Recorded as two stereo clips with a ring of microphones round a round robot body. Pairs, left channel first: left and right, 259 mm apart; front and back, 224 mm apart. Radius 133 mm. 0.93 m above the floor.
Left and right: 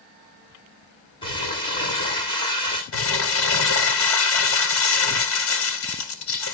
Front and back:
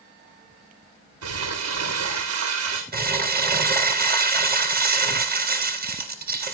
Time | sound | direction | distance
1.2 | crumpling | 165° left | 10 m
2.9 | crumpling | 130° left | 3.5 m